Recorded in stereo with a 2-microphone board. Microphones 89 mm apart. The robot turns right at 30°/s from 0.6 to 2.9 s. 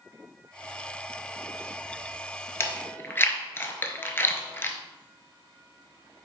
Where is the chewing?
30° left (ahead or behind), 0.6 m; by 4.8 s 25° left (ahead or behind), 0.6 m.